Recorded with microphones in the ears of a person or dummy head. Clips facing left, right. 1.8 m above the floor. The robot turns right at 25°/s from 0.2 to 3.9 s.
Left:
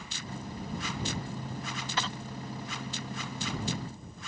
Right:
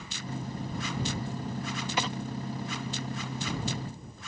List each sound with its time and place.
2.0 s a dropped coin: 10° right (ahead or behind); by 2.2 s 15° right (ahead or behind)